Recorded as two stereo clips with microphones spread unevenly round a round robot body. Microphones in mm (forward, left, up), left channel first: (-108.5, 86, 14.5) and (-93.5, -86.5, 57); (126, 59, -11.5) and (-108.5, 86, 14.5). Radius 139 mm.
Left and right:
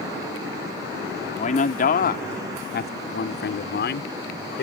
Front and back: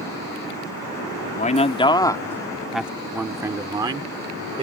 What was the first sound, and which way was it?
A man speaking, 45° left.